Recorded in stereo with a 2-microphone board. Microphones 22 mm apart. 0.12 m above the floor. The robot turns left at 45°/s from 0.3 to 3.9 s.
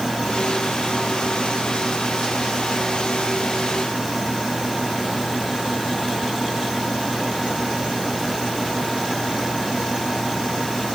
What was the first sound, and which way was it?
Only background noise.